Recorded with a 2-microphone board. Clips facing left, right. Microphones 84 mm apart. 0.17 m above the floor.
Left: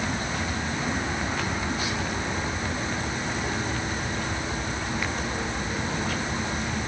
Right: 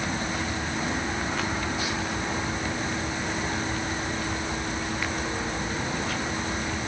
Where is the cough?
No cough in this recording.